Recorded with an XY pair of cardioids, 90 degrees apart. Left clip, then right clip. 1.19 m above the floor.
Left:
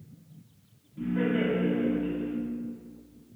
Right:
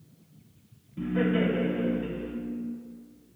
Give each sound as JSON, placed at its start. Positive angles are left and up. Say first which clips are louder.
{"t": 1.0, "sound": "laughter", "louder": "right 1 dB", "azimuth_deg": -50, "distance_m": 0.6}